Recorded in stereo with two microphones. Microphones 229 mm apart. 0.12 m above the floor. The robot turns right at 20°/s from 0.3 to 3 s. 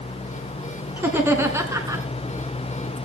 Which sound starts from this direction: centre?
Laughter, at 1.0 s.